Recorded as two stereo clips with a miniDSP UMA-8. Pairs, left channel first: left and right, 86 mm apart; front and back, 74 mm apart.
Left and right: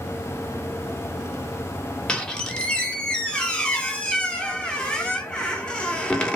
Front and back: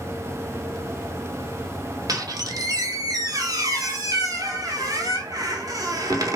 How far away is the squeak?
About 0.6 m.